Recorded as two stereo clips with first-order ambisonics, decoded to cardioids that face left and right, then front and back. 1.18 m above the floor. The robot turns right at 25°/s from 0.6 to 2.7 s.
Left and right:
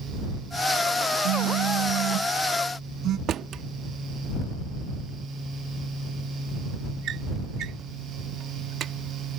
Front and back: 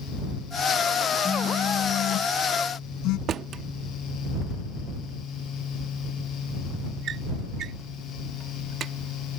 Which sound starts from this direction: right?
A phone buzzing, at 1.2 s.